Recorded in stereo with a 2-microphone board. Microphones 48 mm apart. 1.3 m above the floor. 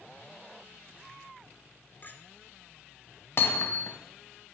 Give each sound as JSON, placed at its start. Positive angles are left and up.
{"t": 2.0, "sound": "a clink", "side_deg": 40, "distance_m": 2.0}
{"t": 3.4, "sound": "hammering", "side_deg": 50, "distance_m": 2.0}